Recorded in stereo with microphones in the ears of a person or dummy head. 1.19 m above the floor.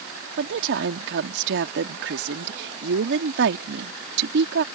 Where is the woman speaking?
65° right (ahead or behind).